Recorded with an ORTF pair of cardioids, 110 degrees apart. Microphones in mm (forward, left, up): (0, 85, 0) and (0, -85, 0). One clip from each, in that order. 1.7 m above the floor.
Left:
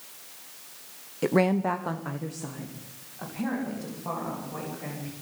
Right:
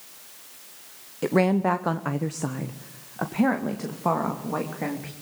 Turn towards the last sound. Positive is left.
turn(degrees=-80)